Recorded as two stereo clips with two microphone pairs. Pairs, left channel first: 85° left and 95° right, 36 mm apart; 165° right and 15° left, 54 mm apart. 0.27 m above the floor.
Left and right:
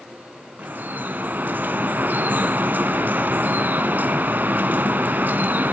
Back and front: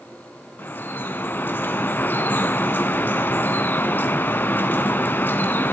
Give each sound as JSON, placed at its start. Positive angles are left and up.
{"t": 0.6, "sound": "dripping", "azimuth_deg": -115, "distance_m": 1.0}